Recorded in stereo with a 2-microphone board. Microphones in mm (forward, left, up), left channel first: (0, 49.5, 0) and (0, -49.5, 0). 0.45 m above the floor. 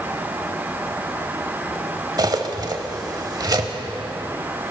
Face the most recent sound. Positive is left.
turn(degrees=-45)  # may be behind; listen again after turning